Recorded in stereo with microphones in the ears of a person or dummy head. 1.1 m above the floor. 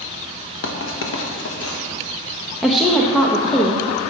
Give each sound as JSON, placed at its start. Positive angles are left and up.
{"t": 0.6, "sound": "writing", "side_deg": 65, "distance_m": 1.5}
{"t": 2.6, "sound": "a woman speaking", "side_deg": 5, "distance_m": 1.0}